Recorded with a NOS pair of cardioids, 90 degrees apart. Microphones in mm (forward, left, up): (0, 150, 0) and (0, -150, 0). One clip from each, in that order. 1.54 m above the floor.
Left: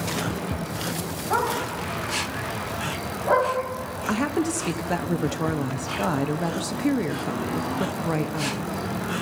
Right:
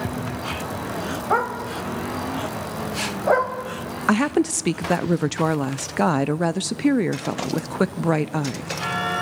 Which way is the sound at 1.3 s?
55° right.